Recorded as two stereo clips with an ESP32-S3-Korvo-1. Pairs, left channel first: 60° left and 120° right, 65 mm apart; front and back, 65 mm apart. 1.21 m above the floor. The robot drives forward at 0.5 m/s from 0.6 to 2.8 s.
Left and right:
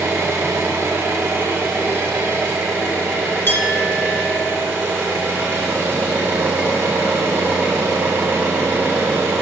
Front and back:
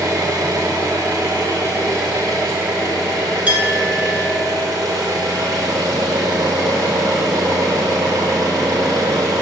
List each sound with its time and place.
0.0 s an engine running: 160° right, 1.3 m; by 9.4 s 170° right, 2.5 m
3.5 s a clink: 115° left, 1.3 m